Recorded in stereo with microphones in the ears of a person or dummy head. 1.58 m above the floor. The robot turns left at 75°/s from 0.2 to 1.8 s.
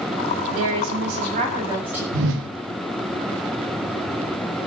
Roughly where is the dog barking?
No dog barking in this recording.